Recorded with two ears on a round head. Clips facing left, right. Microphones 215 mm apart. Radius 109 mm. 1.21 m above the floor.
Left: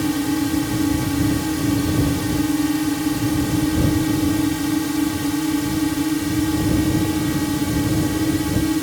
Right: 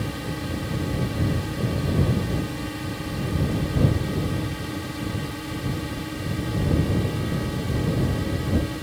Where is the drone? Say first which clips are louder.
Left 12 dB; 70° left (ahead or behind).